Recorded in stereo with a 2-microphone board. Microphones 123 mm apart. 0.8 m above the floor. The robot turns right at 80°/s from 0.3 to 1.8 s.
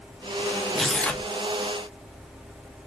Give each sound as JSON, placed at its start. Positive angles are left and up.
{"t": 0.8, "sound": "tearing paper", "side_deg": 0, "distance_m": 0.5}